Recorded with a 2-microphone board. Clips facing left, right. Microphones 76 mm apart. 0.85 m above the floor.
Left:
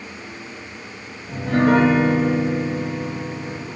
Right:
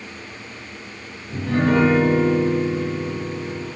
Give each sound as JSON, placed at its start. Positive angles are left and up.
{"t": 1.3, "sound": "a piano", "side_deg": 55, "distance_m": 1.4}